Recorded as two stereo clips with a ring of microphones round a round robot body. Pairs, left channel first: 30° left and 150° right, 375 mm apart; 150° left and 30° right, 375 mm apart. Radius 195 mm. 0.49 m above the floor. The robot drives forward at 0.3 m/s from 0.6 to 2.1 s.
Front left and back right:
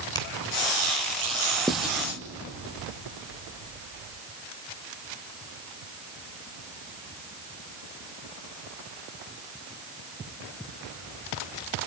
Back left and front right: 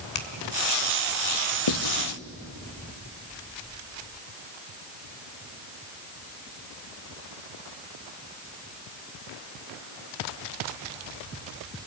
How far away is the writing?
About 1.6 m.